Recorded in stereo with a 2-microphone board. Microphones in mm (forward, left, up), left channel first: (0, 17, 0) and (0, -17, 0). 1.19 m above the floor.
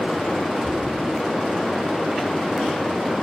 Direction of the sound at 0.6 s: 5° right (ahead or behind).